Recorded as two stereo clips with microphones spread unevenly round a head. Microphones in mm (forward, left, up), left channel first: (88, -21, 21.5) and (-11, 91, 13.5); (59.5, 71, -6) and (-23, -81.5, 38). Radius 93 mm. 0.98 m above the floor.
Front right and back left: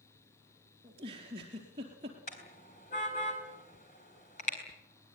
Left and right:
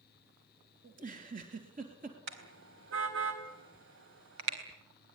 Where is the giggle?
165° right, 4 m.